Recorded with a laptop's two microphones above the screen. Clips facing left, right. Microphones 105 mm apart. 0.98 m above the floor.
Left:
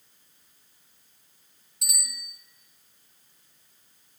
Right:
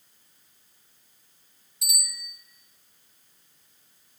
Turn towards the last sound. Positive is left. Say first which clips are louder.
# right 2 dB
turn(degrees=60)  # may be behind; listen again after turning